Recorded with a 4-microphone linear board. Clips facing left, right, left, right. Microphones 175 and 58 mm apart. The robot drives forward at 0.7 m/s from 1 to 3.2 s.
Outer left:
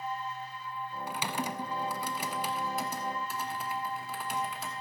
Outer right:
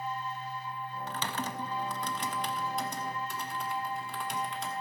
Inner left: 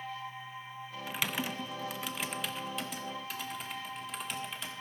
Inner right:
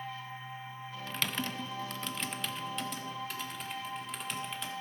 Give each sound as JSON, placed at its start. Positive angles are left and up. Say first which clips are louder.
{"t": 1.1, "sound": "typing on a keyboard", "louder": "outer left 2 dB, inner left 1 dB", "side_deg": 10, "distance_m": 0.6}